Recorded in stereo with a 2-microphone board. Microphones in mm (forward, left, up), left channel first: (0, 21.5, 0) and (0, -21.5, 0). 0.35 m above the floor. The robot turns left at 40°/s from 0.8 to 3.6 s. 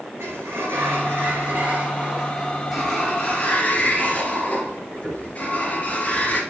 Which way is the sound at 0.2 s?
100° right.